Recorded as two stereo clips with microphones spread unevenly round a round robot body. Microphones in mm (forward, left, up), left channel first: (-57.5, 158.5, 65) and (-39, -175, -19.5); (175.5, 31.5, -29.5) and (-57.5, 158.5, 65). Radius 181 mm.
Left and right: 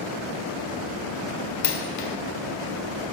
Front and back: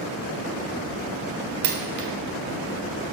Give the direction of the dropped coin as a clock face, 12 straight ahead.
7 o'clock.